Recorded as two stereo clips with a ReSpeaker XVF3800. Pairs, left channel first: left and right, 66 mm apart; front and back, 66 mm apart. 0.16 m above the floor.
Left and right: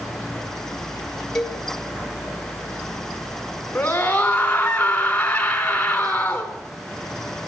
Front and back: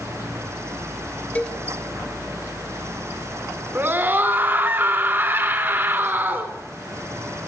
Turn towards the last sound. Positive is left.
turn(degrees=150)